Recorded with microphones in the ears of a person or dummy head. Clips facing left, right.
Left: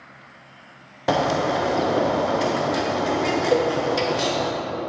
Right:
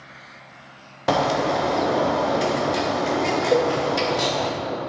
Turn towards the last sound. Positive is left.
turn(degrees=0)  # may be behind; listen again after turning